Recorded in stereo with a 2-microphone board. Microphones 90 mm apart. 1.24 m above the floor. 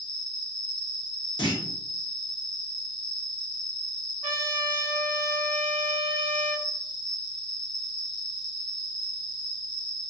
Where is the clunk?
65° left (ahead or behind), 0.9 m.